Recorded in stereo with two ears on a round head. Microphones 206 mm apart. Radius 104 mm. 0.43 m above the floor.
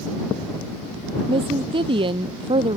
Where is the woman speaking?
20° right (ahead or behind).